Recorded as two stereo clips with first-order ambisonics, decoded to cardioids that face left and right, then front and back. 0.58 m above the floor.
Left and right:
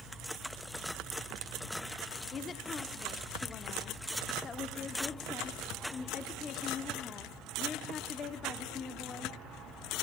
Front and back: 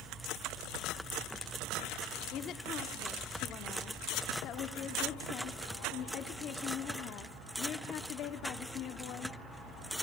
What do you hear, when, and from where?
2.3 s a woman speaking: 30° left, 1.0 m